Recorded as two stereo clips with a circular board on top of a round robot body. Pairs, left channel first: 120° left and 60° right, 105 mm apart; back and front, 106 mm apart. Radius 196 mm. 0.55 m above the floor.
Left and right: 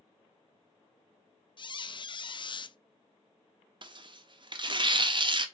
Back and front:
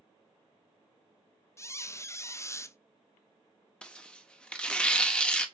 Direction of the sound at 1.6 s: 125° left.